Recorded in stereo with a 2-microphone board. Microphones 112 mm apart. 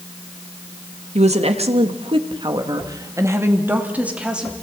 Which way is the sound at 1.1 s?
80° right.